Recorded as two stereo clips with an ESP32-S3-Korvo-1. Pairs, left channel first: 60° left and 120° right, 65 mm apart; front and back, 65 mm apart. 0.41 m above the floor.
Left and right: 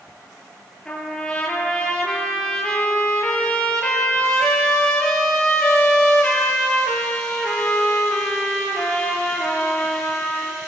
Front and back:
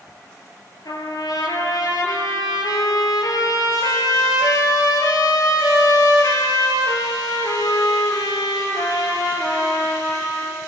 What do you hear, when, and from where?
0.8 s a trumpet: 15° right, 5 m